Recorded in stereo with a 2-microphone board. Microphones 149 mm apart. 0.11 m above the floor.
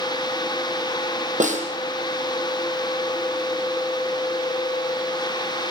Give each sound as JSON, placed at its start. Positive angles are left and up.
{"t": 1.4, "sound": "a snare drum", "side_deg": -55, "distance_m": 4.5}